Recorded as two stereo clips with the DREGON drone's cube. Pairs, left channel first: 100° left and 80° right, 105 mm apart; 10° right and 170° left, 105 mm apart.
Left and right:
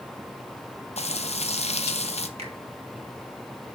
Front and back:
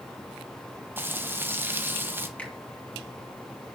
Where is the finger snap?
85° right, 2.5 m.